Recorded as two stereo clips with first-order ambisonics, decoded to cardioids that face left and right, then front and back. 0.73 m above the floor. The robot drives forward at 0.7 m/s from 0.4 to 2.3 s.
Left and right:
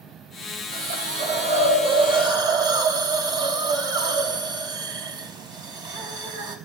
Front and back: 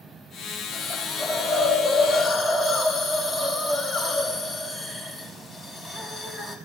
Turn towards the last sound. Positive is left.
turn(degrees=-110)